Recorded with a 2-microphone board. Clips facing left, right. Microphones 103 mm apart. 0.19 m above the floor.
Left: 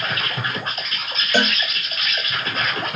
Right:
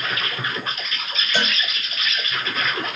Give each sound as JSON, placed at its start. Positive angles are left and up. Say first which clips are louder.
{"t": 0.0, "sound": "an insect", "louder": "left 1 dB", "side_deg": 40, "distance_m": 2.5}
{"t": 1.3, "sound": "a cowbell", "louder": "left 5 dB", "side_deg": 50, "distance_m": 3.0}